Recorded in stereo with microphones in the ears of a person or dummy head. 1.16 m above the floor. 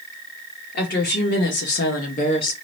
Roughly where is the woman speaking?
Left.